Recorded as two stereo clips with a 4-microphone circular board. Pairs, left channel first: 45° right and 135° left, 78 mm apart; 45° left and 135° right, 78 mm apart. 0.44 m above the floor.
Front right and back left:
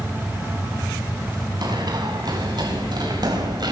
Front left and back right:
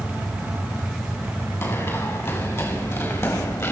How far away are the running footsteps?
About 7.5 m.